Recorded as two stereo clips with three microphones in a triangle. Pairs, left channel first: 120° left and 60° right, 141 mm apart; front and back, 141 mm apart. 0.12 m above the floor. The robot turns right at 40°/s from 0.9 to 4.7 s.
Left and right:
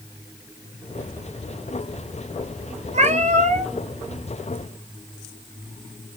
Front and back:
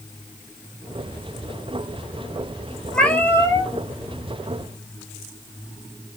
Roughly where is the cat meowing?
Right.